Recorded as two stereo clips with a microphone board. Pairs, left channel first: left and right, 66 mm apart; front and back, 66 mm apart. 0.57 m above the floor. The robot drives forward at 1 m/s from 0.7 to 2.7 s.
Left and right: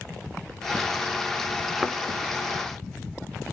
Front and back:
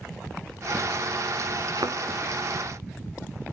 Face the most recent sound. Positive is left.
turn(degrees=-175)